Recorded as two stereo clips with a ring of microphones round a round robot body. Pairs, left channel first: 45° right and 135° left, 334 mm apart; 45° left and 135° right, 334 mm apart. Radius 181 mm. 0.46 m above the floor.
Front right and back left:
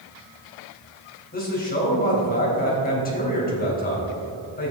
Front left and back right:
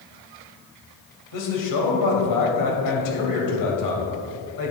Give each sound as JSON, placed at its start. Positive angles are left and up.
{"t": 1.3, "sound": "a man speaking", "azimuth_deg": 20, "distance_m": 3.0}